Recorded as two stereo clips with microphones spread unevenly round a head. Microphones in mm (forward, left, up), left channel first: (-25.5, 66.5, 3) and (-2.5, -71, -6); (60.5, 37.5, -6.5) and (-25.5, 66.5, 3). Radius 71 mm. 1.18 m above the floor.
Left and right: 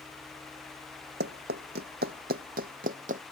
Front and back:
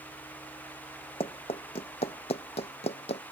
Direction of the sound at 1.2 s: 65° right.